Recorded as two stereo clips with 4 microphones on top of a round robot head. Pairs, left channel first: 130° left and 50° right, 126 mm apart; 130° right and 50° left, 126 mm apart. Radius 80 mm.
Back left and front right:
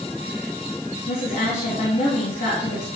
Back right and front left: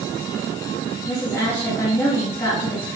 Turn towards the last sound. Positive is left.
turn(degrees=155)